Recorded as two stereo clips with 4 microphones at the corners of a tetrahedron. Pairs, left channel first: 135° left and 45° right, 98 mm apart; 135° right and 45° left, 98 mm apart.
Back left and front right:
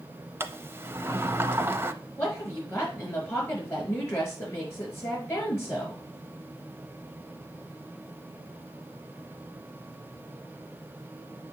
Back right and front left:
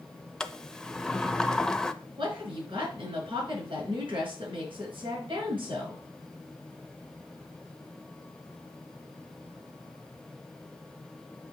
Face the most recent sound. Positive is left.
turn(degrees=75)